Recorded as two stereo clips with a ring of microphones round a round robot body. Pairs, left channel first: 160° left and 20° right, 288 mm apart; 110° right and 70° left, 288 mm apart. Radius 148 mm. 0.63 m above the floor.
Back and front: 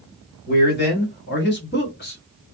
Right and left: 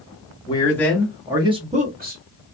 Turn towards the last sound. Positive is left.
turn(degrees=110)